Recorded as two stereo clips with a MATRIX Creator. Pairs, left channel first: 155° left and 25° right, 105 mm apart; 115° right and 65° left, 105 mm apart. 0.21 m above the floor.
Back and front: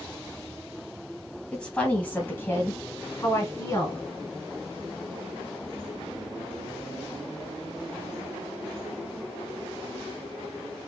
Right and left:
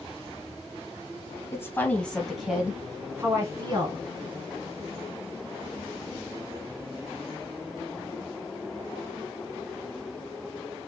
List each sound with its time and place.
1.5 s a woman speaking: 130° right, 1.3 m; by 4.0 s 105° left, 1.8 m